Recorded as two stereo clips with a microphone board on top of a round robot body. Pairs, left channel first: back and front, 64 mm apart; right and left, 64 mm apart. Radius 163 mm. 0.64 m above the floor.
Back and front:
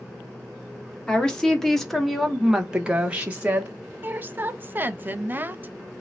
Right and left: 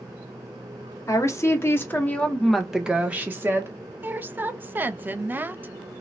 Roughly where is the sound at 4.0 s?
Ahead left.